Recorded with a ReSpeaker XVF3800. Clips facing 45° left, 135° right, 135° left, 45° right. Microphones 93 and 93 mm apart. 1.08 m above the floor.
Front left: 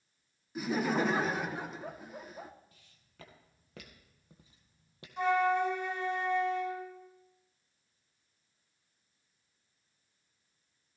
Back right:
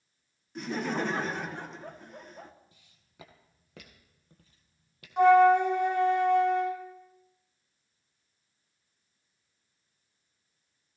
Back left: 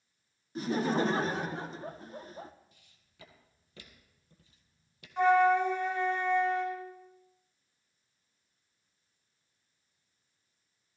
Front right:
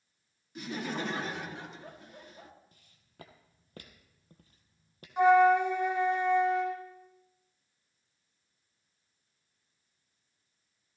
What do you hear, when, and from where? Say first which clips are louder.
0.6 s laughter: front left 1 dB, back left 7 dB; 130° left, 0.7 m
2.7 s footsteps: back right 1 dB, front right 5 dB; 75° right, 1.8 m; by 5.1 s 10° right, 1.8 m
5.2 s a flute: back right 10 dB, front right 2 dB; 115° right, 1.6 m